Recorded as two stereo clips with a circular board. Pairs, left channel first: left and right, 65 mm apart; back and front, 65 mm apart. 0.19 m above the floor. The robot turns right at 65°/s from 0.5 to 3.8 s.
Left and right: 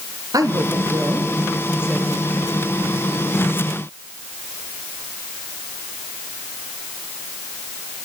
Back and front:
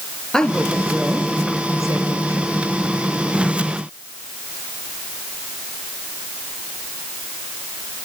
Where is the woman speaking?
100° right, 4 m; by 2.6 s 35° left, 4 m.